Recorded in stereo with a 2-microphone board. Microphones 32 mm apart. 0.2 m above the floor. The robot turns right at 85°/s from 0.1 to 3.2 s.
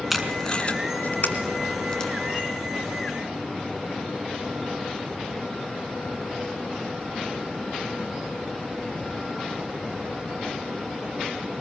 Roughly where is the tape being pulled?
Centre.